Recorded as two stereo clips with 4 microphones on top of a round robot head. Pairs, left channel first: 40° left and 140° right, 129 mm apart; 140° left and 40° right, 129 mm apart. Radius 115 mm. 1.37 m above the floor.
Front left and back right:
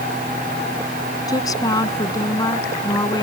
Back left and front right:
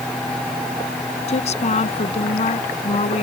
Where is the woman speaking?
105° left.